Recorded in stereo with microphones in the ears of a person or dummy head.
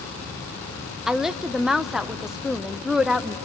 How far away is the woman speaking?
About 0.6 m.